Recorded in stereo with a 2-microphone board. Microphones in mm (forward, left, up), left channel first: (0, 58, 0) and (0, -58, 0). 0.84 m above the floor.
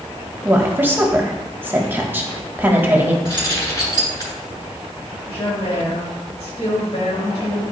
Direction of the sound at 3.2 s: 35° left (ahead or behind).